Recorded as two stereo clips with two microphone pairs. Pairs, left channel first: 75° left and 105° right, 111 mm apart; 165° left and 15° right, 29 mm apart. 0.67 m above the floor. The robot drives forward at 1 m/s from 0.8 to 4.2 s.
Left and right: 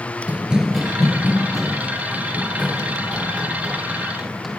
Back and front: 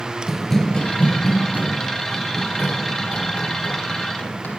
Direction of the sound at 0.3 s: 55° right.